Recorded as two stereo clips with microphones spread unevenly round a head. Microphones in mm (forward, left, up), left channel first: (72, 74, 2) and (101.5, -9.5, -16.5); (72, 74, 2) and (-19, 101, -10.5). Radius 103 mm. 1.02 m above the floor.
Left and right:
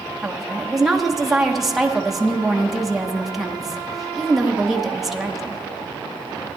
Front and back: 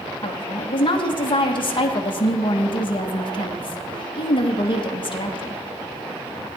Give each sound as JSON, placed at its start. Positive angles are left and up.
{"t": 0.2, "sound": "a woman speaking", "azimuth_deg": 10, "distance_m": 1.2}